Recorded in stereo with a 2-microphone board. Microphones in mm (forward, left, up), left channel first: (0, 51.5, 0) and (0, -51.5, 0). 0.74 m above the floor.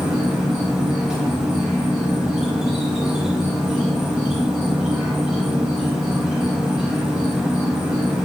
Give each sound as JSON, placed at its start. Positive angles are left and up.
{"t": 0.0, "sound": "an insect", "side_deg": -5, "distance_m": 0.7}